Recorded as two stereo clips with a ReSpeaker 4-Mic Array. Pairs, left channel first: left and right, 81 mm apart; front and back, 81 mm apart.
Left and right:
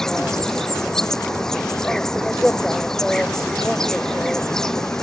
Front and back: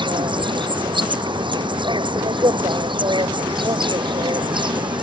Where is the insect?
175° left.